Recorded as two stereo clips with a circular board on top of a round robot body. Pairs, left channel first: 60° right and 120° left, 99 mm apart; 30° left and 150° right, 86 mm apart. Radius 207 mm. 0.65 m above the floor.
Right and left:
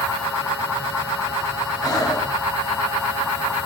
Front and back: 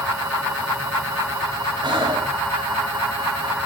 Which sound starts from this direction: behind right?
Breathing, at 1.8 s.